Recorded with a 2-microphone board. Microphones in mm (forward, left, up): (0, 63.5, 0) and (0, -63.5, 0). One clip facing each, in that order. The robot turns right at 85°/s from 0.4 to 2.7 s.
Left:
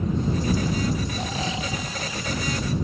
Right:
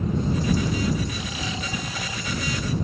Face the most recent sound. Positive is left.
turn(degrees=-105)